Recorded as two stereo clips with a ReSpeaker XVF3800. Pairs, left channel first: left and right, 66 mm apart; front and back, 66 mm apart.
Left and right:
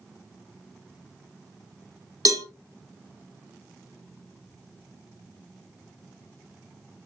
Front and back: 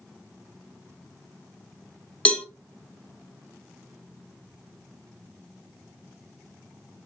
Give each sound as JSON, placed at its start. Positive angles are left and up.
{"t": 2.2, "sound": "a cowbell", "azimuth_deg": -75, "distance_m": 0.7}